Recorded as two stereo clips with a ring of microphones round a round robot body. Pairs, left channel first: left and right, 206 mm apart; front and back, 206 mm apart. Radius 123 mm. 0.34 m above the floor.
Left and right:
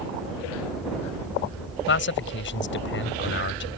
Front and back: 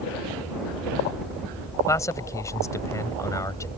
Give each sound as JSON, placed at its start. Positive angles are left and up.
{"t": 1.9, "sound": "a man speaking", "azimuth_deg": 75}